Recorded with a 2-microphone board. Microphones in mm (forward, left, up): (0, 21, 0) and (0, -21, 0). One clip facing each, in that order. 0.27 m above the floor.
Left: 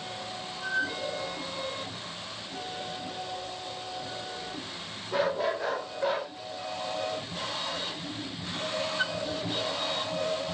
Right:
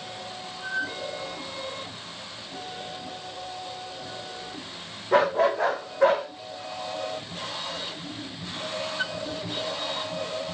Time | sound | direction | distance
5.1 | a dog barking | 75° right (ahead or behind) | 6 m